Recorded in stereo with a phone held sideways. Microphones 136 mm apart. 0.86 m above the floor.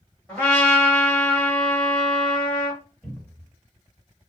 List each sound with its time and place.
0.3 s a trumpet: 10° left (ahead or behind), 1.5 m
3.0 s a cupboard door: 10° left (ahead or behind), 1.3 m